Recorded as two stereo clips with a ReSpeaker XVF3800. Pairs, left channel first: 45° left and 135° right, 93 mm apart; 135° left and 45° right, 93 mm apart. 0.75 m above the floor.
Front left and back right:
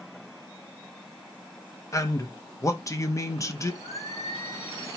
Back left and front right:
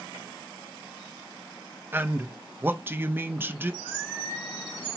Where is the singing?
40° left, 2.5 m.